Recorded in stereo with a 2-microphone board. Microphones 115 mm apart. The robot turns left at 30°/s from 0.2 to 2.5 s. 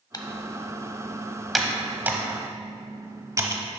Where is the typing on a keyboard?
35° left (ahead or behind), 0.7 m; by 3.6 s 30° right (ahead or behind), 0.7 m.